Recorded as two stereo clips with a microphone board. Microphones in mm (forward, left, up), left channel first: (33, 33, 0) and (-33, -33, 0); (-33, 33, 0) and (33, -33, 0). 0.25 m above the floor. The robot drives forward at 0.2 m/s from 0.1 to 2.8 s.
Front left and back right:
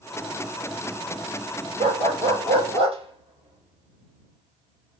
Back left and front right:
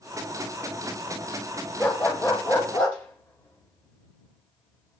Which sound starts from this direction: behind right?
A dog barking, at 1.8 s.